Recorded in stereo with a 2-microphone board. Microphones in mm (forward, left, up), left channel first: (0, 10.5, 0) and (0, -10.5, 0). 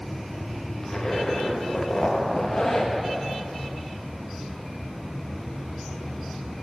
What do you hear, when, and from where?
0.8 s a zipper: 20° left (ahead or behind), 1.3 m